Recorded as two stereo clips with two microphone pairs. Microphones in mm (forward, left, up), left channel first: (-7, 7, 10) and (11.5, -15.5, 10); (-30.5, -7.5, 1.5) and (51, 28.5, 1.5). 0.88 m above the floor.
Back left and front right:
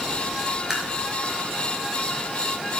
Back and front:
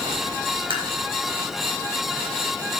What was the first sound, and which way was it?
Tapping, 20° left.